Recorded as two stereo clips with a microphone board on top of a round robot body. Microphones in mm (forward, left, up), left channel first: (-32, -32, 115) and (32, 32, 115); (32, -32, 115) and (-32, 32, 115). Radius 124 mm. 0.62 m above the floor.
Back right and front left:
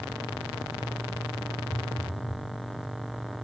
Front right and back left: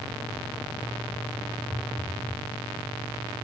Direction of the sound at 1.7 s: 115° right.